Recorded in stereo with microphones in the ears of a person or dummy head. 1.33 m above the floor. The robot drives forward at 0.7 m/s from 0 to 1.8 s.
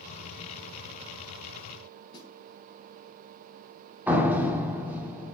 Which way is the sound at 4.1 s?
10° right (ahead or behind).